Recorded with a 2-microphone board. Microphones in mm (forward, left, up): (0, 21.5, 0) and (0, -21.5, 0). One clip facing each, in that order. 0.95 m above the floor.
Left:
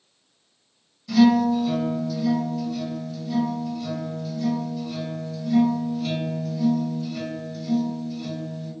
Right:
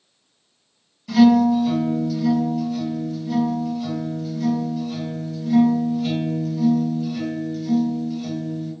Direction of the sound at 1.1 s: 55° right (ahead or behind).